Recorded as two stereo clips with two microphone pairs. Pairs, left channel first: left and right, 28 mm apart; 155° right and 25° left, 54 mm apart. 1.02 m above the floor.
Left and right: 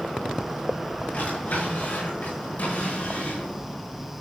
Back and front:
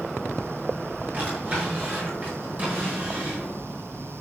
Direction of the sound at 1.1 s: 80° left.